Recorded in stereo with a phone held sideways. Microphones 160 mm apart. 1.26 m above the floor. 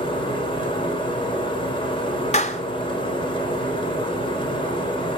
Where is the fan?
30° left (ahead or behind), 4.5 m.